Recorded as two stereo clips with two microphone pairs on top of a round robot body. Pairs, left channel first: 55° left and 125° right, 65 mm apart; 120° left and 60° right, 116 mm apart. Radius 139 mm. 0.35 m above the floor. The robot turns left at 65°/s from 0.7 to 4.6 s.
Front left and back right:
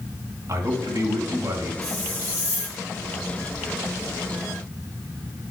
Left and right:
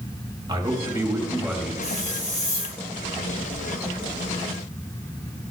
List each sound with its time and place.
0.5 s a man speaking: 105° right, 2 m; by 1.7 s 170° right, 2 m
1.8 s a hiss: 140° left, 3 m; by 2.8 s 75° left, 3 m